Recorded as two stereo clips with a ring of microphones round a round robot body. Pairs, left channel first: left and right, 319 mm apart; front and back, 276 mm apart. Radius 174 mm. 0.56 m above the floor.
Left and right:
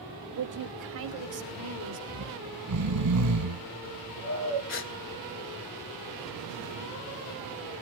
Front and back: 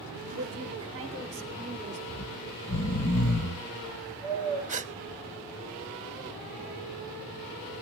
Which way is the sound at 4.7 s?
125° left.